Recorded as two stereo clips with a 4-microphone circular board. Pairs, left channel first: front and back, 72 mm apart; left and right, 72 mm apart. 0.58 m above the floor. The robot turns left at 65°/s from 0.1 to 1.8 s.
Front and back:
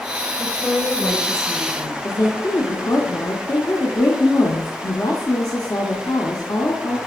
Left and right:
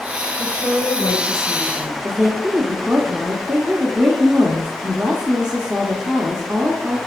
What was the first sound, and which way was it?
A woman speaking, 125° left.